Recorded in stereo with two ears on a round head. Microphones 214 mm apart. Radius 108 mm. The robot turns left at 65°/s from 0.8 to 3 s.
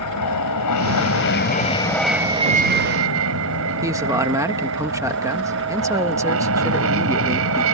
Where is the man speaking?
15° right (ahead or behind).